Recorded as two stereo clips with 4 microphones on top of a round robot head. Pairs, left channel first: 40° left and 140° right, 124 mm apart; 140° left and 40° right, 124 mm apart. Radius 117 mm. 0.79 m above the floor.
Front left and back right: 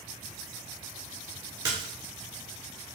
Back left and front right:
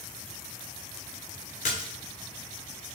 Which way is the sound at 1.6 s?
165° left.